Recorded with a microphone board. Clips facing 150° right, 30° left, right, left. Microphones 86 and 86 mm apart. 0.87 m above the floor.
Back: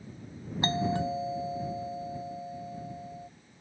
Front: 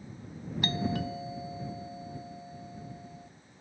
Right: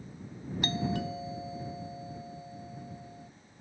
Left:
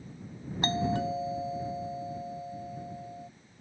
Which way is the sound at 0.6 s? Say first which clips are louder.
Back 4 dB, left 4 dB; 145° left.